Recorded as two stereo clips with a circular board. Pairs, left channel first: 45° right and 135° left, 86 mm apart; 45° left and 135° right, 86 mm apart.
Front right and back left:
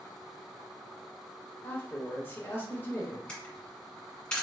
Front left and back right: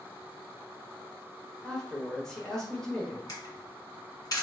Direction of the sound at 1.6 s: 25° right.